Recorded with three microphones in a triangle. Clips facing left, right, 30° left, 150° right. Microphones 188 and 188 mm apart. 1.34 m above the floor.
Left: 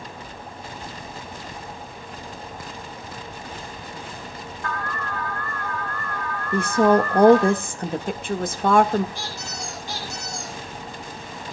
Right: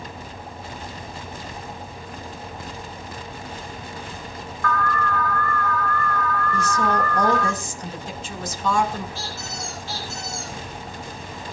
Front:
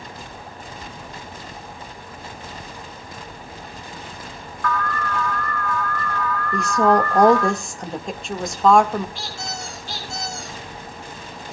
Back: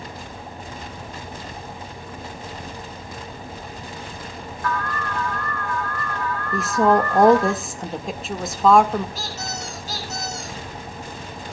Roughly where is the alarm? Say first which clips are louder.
Right 7 dB, front 2 dB; behind left.